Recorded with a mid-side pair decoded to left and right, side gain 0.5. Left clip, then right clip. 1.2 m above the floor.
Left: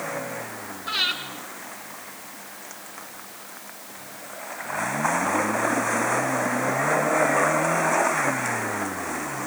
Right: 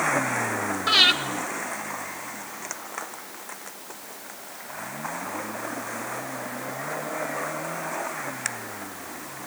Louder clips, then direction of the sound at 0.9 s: Right 7 dB; 65° right.